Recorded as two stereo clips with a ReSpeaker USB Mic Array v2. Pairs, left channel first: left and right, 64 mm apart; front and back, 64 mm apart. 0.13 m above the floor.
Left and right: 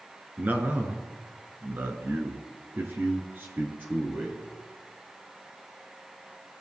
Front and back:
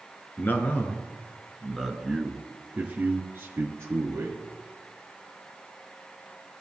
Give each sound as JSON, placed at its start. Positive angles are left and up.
{"t": 0.4, "sound": "a man speaking", "azimuth_deg": -40, "distance_m": 1.3}